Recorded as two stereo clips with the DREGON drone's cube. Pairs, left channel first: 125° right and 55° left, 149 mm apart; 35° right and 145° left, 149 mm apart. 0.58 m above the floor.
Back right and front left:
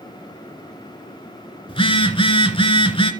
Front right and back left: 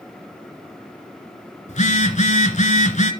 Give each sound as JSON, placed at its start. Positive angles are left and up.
{"t": 1.7, "sound": "a phone buzzing", "azimuth_deg": -70, "distance_m": 2.0}